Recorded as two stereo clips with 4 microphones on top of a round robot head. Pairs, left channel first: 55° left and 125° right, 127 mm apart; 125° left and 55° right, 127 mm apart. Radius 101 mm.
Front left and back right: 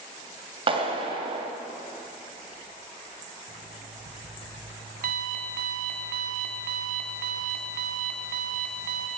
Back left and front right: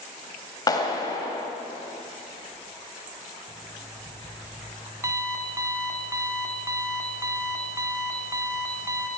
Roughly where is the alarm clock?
Behind right.